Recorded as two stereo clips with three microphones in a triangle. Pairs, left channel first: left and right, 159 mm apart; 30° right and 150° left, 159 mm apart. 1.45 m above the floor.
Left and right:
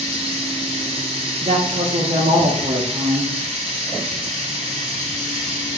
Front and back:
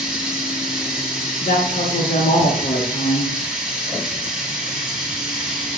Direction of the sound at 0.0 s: 130° right.